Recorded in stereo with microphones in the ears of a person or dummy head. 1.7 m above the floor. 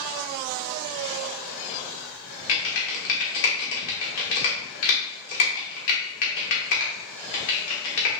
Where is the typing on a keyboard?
55° left (ahead or behind), 1.4 m.